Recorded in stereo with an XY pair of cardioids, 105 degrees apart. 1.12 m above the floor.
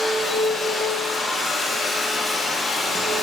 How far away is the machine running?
About 3 m.